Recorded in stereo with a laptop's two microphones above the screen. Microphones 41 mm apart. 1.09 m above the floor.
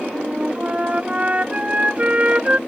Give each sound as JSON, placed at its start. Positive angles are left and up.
{"t": 0.1, "sound": "a flute", "side_deg": -30}